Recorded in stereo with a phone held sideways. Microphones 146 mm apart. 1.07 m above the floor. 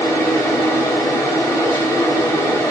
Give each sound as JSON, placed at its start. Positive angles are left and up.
{"t": 0.0, "sound": "a fan", "side_deg": 20, "distance_m": 1.3}